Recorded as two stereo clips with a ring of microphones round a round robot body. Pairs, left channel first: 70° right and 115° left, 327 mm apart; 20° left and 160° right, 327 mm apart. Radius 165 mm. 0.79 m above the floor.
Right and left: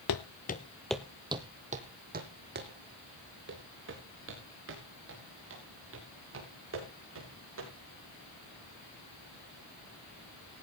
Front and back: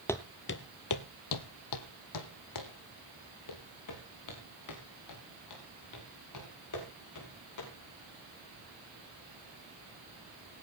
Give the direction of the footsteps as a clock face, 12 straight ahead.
2 o'clock.